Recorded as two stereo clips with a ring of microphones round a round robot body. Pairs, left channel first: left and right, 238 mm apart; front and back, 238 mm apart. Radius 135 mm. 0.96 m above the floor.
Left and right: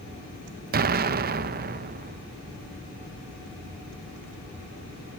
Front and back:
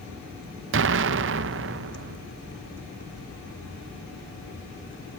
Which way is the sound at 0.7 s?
140° right.